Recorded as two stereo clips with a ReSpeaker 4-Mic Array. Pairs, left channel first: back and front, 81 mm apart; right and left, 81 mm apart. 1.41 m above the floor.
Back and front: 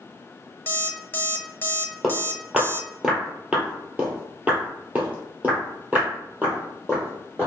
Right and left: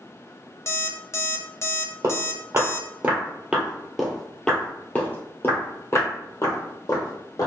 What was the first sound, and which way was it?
An alarm clock, 130° right.